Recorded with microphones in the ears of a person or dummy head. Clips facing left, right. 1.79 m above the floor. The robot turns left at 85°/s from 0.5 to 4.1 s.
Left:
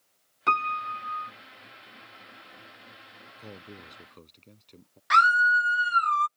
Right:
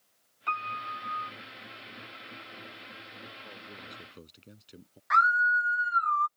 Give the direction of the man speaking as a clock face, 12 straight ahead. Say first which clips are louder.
Left 3 dB; 10 o'clock.